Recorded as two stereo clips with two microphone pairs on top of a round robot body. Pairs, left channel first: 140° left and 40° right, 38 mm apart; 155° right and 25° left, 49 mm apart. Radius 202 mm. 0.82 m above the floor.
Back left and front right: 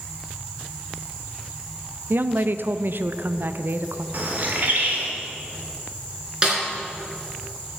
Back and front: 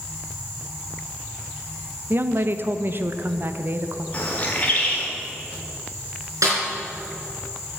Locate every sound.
2.1 s a woman speaking: 15° right, 0.7 m
4.1 s a bird: 85° right, 1.1 m
6.4 s a snare drum: 25° left, 4 m